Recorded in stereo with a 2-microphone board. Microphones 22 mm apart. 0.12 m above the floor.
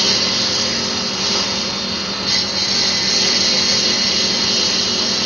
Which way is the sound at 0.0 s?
5° right (ahead or behind).